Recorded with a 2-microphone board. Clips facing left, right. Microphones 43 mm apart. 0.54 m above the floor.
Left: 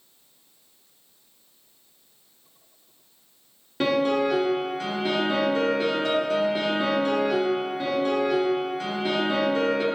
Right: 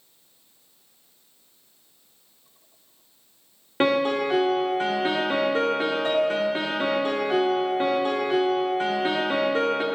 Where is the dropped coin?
I don't hear a dropped coin.